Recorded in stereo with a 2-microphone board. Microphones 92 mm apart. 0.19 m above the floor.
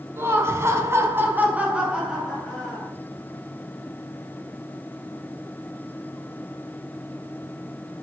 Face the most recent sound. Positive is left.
turn(degrees=0)  # may be behind; listen again after turning